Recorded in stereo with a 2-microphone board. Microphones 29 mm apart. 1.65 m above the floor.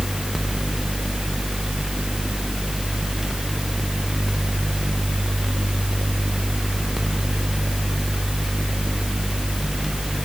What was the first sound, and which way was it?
Only background noise.